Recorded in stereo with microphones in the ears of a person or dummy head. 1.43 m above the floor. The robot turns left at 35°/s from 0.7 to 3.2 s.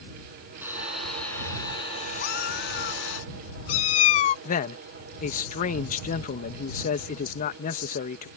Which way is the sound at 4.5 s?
45° left (ahead or behind).